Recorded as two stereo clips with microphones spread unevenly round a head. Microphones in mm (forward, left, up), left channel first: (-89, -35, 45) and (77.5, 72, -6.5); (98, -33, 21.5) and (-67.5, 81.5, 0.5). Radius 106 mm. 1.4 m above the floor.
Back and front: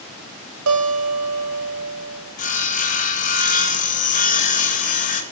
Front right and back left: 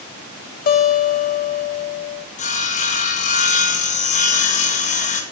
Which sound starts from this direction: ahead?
A guitar, at 0.7 s.